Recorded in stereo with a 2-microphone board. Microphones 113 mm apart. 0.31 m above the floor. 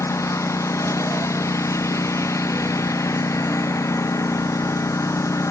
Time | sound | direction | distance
0.0 | a lawn mower | 25° left (ahead or behind) | ?